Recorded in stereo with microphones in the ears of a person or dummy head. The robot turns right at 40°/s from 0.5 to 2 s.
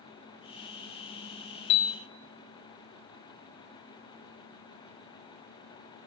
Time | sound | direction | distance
1.7 | a piano | 30° left (ahead or behind) | 0.8 m